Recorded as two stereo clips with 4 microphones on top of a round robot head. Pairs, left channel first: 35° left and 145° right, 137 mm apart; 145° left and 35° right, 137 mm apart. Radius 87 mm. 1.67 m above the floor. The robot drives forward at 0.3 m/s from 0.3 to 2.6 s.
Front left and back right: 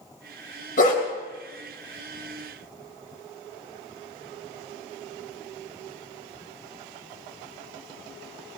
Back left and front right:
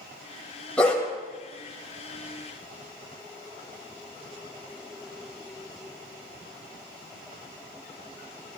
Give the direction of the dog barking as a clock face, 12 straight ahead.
10 o'clock.